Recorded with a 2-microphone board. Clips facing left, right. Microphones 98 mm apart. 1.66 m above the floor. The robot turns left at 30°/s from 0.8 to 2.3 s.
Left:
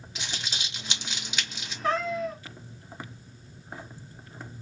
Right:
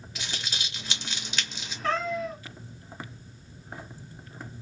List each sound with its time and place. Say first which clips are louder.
0.1 s crumpling: even; 20° left (ahead or behind), 1.6 m; by 1.7 s centre (ahead or behind), 1.6 m
1.8 s a cat meowing: left 1 dB; 15° left (ahead or behind), 1.3 m; by 2.4 s 5° left (ahead or behind), 1.3 m